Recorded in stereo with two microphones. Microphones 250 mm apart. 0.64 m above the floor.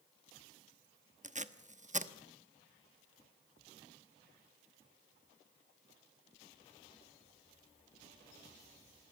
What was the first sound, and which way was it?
Tape being pulled, 30° right (ahead or behind).